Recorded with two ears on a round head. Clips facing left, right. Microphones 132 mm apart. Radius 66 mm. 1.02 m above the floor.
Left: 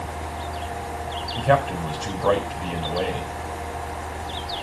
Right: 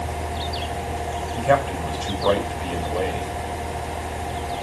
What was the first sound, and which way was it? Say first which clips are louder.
A man speaking: even; 5° right (ahead or behind).